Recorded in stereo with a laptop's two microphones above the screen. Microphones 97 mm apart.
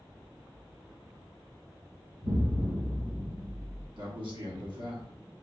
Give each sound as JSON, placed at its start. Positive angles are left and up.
{"t": 2.2, "sound": "an explosion", "side_deg": -60, "distance_m": 1.4}
{"t": 4.0, "sound": "a man speaking", "side_deg": -60, "distance_m": 1.4}